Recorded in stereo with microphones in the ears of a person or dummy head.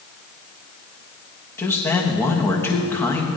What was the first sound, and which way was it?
A man speaking, 10° left (ahead or behind).